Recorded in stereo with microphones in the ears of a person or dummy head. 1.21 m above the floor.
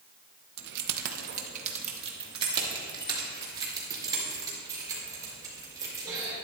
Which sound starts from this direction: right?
Keys jangling, at 0.6 s.